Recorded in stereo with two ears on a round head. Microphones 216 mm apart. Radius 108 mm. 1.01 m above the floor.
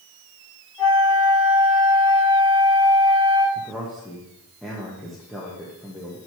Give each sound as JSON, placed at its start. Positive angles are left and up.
{"t": 0.8, "sound": "a flute", "side_deg": 15, "distance_m": 3.5}
{"t": 3.5, "sound": "a man speaking", "side_deg": 0, "distance_m": 1.1}